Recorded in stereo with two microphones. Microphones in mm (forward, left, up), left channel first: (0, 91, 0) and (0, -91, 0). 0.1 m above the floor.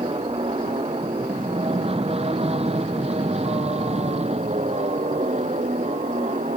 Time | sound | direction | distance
0.0 | an aircraft | 30° right (ahead or behind) | ?